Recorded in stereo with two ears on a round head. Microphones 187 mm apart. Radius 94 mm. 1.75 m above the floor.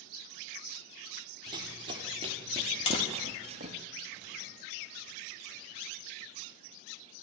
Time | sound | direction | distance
1.5 | running footsteps | 20° right (ahead or behind) | 3.5 m
2.9 | tapping | 25° left (ahead or behind) | 3.5 m